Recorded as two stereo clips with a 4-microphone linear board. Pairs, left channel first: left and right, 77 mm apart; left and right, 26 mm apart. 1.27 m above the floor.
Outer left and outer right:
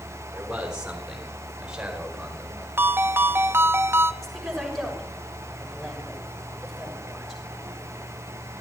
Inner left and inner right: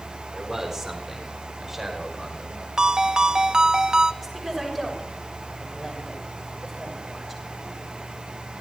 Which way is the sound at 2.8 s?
30° right (ahead or behind).